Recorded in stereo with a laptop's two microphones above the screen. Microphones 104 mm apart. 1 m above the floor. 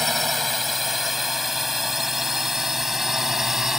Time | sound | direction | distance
0.0 | a drone | centre (ahead or behind) | ?